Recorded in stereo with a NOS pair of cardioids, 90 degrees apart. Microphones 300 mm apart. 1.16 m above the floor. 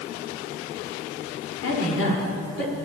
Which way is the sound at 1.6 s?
55° left.